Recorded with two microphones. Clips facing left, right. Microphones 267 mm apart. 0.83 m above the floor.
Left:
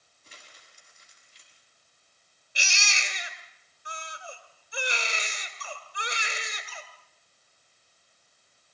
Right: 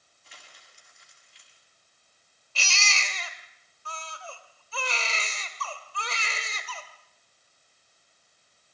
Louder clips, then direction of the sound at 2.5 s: Right 2 dB; 15° left (ahead or behind).